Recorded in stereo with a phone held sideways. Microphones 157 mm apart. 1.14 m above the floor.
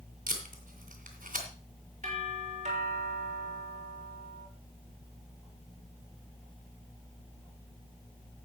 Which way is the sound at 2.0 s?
50° right (ahead or behind).